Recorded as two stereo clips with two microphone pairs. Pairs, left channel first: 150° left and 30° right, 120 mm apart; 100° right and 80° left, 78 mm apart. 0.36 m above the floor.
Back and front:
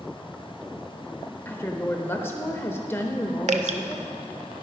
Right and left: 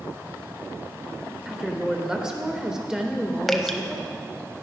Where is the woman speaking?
140° left, 0.8 m.